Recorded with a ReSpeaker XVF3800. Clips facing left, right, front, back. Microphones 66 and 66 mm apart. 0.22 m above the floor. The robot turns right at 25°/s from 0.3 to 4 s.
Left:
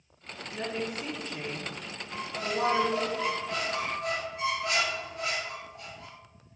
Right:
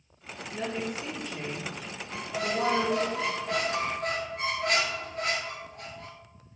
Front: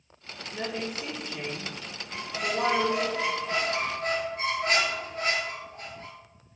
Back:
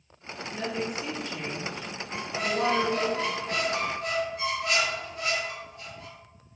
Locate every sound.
0.5 s a woman speaking: 35° left, 1.7 m; by 3.1 s 100° left, 1.7 m
2.1 s a squeak: 95° right, 0.8 m; by 6.1 s 50° right, 0.8 m